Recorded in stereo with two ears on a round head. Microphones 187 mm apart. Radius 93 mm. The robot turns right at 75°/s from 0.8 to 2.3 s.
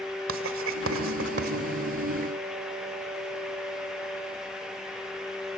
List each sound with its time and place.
0.3 s writing: 70° right (ahead or behind), 2 m; by 1.5 s 45° right (ahead or behind), 2 m